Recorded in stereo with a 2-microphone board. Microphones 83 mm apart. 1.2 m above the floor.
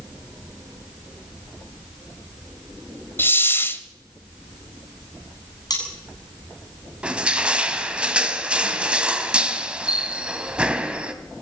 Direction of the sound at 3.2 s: 25° left (ahead or behind).